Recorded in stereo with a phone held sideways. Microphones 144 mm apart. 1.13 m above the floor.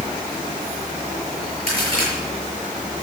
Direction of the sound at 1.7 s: 40° right (ahead or behind).